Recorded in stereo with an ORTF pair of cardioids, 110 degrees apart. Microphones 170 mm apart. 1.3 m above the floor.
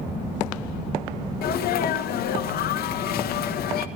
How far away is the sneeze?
About 1.4 m.